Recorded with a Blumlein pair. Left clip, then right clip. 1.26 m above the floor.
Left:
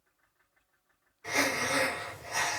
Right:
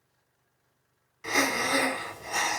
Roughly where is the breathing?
Ahead right.